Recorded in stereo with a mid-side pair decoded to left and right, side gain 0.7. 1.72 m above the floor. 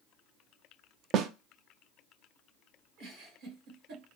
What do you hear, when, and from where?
1.1 s a snare drum: 45° right, 0.5 m
3.0 s a giggle: 60° right, 1.9 m